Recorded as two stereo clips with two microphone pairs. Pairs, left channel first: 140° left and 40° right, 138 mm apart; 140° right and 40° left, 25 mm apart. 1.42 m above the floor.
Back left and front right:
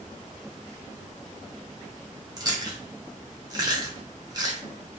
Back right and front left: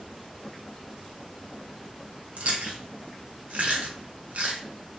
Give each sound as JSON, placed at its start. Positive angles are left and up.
{"t": 2.4, "sound": "chewing", "azimuth_deg": 20, "distance_m": 0.8}